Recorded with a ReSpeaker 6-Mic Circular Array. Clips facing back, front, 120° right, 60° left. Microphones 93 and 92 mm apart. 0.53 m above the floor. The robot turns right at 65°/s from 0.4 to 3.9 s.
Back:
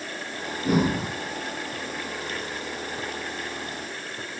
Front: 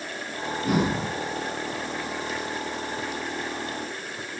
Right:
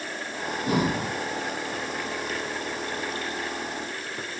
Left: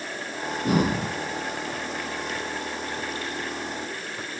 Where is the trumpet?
I don't hear a trumpet.